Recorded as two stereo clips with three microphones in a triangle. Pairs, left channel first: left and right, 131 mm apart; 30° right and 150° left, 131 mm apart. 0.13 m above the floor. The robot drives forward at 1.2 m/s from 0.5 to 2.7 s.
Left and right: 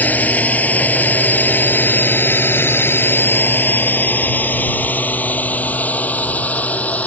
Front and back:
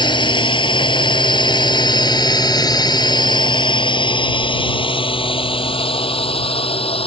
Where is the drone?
15° left; by 7.1 s 10° left.